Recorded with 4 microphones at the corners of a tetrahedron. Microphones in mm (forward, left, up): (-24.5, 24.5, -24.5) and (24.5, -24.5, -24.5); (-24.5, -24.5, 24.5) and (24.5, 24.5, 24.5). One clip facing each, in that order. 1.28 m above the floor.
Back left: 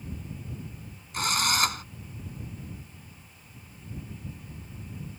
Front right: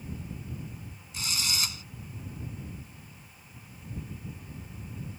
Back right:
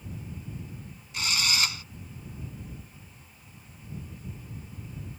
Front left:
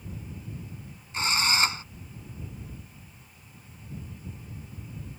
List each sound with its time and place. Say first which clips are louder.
1.1 s a drill: back left 9 dB, front left 4 dB; 100° left